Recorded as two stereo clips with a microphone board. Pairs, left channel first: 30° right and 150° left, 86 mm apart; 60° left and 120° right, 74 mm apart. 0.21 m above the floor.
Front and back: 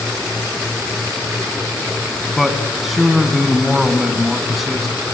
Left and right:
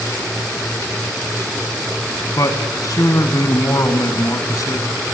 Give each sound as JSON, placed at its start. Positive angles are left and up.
{"t": 2.4, "sound": "a man speaking", "azimuth_deg": 65, "distance_m": 2.5}